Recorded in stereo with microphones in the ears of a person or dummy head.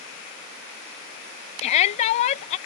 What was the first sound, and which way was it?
A shout, 35° left (ahead or behind).